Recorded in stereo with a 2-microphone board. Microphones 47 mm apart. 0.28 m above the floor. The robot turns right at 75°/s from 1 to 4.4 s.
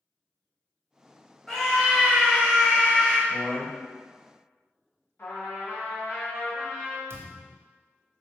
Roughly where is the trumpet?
Left.